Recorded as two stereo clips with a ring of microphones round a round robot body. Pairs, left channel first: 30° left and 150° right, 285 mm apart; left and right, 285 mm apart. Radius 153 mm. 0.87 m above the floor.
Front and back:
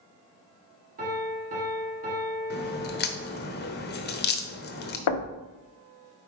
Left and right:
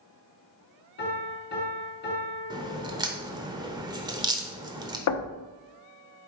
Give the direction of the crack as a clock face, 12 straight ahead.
1 o'clock.